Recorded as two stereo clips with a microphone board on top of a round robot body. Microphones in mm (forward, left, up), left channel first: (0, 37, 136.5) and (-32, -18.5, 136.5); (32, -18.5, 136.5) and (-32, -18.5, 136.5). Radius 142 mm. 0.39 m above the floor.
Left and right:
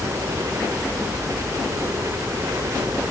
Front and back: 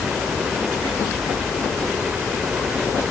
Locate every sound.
0.0 s a helicopter: 100° right